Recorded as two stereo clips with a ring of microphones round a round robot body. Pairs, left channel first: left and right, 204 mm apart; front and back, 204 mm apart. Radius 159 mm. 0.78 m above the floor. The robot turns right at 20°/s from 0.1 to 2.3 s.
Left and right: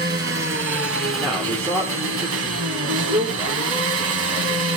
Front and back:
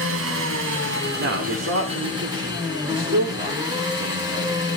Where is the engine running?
145° right, 2 m; by 4.8 s 100° right, 2 m.